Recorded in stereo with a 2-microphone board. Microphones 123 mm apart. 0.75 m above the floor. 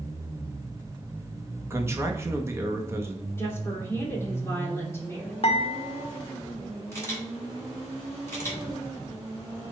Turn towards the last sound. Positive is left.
turn(degrees=20)  # may be behind; listen again after turning